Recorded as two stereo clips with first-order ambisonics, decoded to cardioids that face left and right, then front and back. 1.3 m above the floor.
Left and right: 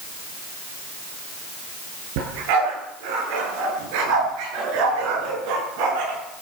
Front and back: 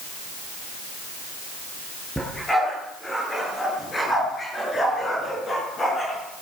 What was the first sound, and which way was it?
A dog barking, 85° right.